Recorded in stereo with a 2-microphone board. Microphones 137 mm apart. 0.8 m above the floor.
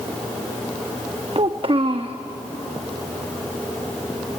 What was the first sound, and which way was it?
A child speaking, 45° right (ahead or behind).